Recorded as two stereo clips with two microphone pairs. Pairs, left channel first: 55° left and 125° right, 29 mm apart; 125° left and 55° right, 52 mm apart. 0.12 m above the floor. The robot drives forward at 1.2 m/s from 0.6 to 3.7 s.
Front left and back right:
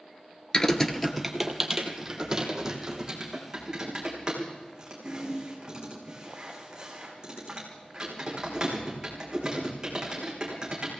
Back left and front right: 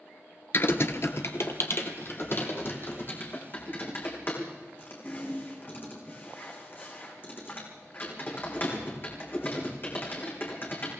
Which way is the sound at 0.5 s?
115° left.